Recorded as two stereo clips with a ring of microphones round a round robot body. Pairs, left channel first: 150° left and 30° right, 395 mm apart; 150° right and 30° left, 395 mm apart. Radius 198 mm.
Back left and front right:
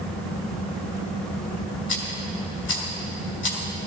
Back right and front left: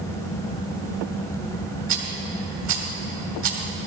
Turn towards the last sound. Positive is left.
turn(degrees=90)